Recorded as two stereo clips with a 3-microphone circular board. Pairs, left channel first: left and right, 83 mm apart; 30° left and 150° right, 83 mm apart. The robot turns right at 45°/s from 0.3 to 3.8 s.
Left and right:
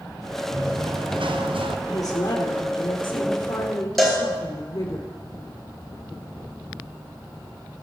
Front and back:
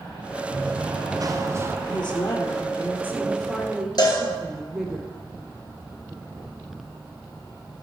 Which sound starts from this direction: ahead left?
A woman speaking, at 1.9 s.